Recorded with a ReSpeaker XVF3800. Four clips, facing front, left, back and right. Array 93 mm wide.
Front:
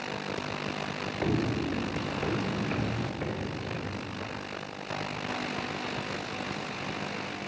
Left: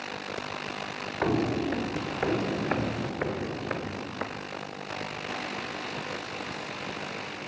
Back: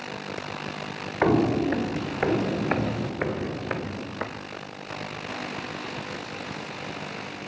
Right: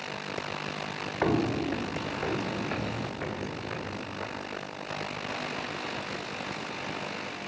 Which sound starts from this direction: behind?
Footsteps, at 1.2 s.